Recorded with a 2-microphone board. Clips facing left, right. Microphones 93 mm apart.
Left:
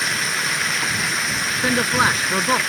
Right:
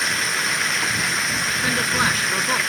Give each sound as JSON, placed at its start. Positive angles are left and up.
{"t": 0.0, "sound": "running water", "side_deg": 0}
{"t": 1.6, "sound": "a man speaking", "side_deg": 25}